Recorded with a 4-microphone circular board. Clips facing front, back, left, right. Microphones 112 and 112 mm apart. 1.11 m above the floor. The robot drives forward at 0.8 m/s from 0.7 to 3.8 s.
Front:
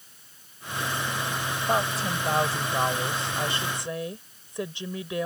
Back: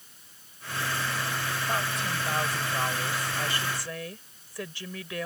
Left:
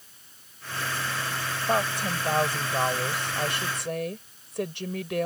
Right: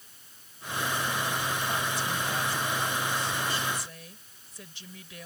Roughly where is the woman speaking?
Ahead left.